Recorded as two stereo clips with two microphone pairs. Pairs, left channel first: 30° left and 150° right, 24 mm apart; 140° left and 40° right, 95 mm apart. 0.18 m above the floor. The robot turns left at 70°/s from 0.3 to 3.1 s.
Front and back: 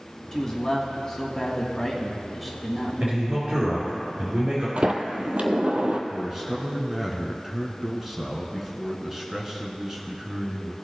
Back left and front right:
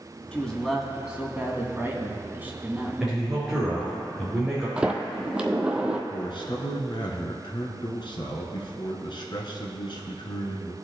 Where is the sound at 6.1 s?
140° left, 1.7 m.